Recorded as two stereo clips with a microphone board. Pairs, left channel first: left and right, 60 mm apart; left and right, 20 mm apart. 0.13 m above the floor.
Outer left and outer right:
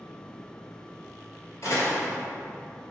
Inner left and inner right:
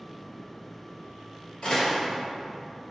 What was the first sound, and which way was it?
A door slam, 55° left (ahead or behind).